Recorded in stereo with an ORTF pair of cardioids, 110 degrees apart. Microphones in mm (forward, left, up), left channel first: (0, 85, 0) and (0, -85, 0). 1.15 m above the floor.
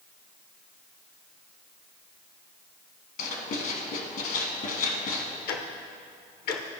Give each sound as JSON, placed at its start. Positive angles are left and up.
{"t": 3.2, "sound": "writing", "azimuth_deg": 60, "distance_m": 1.3}
{"t": 5.5, "sound": "ticking", "azimuth_deg": 70, "distance_m": 0.9}